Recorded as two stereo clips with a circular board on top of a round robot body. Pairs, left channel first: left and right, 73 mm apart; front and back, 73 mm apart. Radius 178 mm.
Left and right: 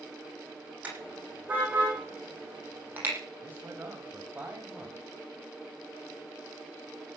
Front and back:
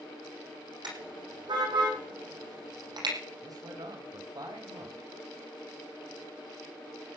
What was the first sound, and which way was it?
A car horn, 160° right.